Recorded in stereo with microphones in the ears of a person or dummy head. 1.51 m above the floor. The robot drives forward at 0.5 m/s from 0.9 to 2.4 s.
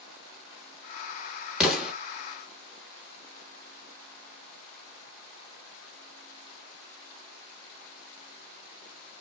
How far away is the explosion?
About 1.8 m.